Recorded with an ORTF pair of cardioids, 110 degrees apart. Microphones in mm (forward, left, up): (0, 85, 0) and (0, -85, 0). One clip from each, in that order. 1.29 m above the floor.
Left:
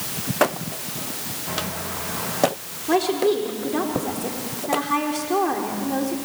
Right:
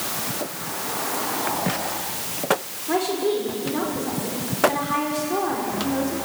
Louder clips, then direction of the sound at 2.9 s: Left 3 dB; 30° left.